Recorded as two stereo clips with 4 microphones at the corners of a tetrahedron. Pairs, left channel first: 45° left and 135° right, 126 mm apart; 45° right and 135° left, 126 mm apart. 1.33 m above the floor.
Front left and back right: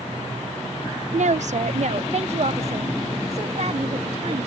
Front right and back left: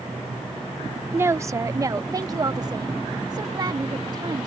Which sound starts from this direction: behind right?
A woman speaking, at 1.1 s.